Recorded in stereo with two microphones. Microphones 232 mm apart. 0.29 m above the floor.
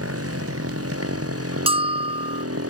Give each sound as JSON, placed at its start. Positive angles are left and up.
{"t": 0.0, "sound": "a motorcycle", "side_deg": -85}
{"t": 1.7, "sound": "a bell", "side_deg": -25}